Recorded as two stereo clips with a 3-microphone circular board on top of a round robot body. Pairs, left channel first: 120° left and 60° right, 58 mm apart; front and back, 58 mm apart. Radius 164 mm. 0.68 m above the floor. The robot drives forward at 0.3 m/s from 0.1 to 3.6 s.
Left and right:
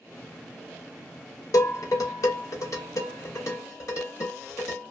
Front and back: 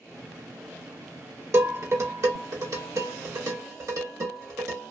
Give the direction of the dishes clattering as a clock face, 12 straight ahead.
7 o'clock.